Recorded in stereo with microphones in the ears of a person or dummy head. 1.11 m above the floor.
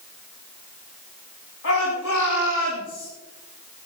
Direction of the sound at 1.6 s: 85° left.